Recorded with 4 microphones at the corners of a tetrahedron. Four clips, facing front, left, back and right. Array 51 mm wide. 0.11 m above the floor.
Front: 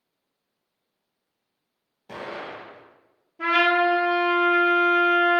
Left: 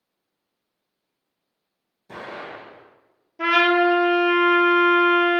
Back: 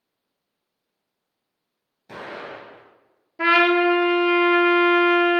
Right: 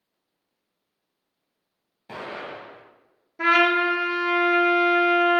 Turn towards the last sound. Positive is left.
turn(degrees=-170)